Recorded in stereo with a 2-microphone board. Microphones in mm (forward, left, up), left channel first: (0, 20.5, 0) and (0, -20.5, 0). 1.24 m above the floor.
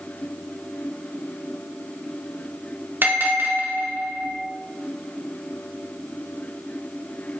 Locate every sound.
3.0 s a bell: 70° right (ahead or behind), 2 m